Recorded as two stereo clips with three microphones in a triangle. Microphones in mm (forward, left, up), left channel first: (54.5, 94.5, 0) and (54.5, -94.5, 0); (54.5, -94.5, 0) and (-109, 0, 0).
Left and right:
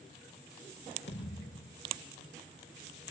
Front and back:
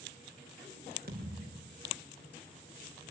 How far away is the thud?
About 6 m.